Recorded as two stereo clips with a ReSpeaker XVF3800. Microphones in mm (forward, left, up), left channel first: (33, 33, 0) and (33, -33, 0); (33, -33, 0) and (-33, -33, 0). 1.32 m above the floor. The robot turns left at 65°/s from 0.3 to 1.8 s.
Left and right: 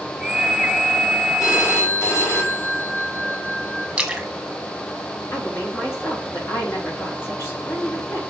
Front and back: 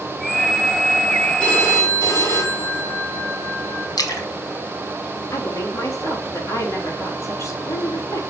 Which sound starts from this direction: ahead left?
A woman speaking, at 5.3 s.